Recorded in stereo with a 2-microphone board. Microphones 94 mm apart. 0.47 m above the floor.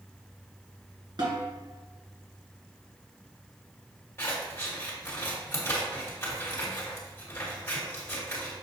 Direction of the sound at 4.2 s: 25° left (ahead or behind).